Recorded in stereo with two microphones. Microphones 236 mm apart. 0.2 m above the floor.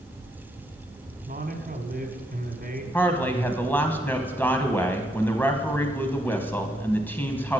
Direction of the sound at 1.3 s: 40° right (ahead or behind).